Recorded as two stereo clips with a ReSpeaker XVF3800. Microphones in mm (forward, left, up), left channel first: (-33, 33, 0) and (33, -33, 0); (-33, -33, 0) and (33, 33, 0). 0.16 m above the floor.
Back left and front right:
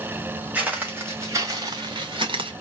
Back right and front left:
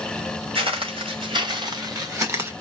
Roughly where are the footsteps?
Ahead left.